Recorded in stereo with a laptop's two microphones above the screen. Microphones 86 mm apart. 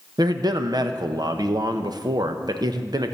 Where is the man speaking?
50° right (ahead or behind), 0.8 m.